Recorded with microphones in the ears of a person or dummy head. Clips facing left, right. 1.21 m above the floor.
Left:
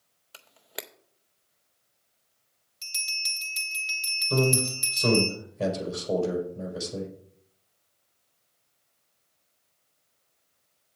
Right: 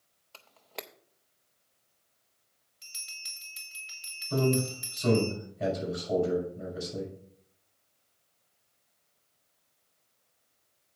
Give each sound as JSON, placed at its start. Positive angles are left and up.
{"t": 0.3, "sound": "a camera shutter", "side_deg": 10, "distance_m": 0.5}
{"t": 2.8, "sound": "a bell", "side_deg": 50, "distance_m": 2.5}
{"t": 4.3, "sound": "a man speaking", "side_deg": 85, "distance_m": 4.5}